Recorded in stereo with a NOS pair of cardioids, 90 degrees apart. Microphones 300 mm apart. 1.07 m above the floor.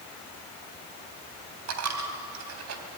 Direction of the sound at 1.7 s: 60° right.